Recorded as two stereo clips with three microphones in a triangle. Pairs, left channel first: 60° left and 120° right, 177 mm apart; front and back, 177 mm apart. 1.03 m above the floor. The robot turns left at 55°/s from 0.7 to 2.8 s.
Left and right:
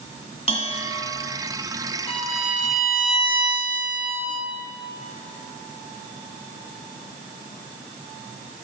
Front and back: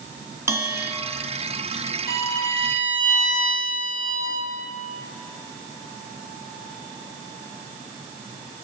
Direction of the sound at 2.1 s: 15° right.